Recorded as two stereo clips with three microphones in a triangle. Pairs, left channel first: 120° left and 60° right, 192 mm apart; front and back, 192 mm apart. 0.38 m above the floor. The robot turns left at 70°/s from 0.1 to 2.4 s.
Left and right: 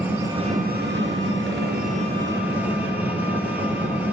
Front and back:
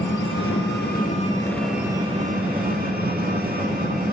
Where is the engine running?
20° left, 4 m; by 4.1 s 140° right, 4 m.